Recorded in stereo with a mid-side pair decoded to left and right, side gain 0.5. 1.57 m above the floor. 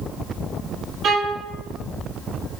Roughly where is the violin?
Ahead right.